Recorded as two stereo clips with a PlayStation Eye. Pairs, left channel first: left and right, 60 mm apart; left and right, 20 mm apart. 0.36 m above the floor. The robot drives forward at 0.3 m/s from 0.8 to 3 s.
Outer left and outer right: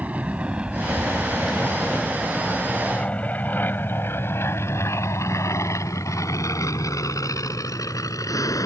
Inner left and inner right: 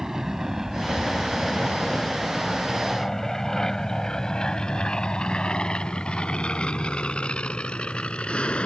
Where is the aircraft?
25° right (ahead or behind); by 8.7 s 75° left (ahead or behind).